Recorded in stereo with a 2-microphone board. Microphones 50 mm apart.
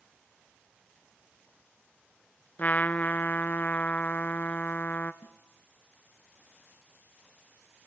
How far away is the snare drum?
About 1.3 m.